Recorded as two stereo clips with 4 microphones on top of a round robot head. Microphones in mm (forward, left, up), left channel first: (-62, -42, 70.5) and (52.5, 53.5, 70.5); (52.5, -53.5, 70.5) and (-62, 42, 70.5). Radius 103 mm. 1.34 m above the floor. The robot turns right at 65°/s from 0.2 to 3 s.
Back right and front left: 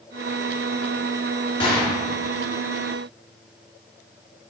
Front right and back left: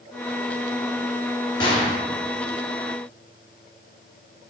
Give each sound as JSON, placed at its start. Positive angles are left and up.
{"t": 1.6, "sound": "a gunshot", "azimuth_deg": -90, "distance_m": 1.0}